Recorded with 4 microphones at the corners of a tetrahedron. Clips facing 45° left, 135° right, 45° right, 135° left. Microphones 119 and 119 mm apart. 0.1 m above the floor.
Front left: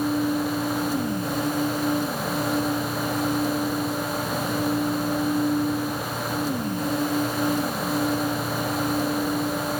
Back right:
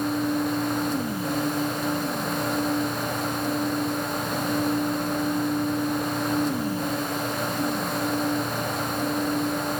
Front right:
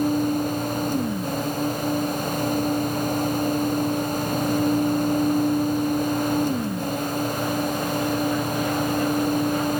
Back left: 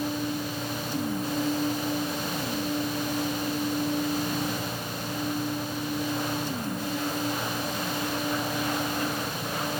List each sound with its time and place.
Only background noise.